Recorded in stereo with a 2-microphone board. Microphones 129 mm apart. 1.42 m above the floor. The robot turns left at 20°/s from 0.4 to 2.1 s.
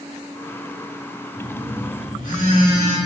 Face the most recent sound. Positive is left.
turn(degrees=80)